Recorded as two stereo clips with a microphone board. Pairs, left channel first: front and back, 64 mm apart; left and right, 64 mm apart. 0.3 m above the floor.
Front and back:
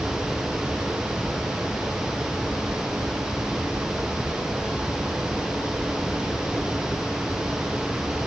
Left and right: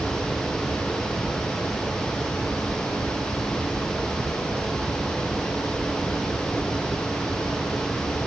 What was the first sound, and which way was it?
Only background noise.